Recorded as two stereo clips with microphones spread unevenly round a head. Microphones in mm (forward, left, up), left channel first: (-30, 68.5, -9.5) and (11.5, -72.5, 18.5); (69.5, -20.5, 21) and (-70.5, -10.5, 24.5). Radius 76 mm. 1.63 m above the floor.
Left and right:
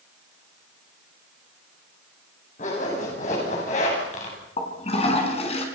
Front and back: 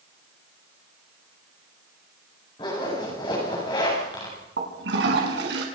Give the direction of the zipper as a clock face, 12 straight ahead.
10 o'clock.